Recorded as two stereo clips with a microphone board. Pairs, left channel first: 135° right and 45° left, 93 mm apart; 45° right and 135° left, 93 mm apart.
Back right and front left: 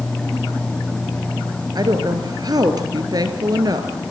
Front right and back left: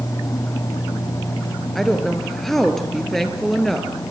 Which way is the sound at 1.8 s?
40° left.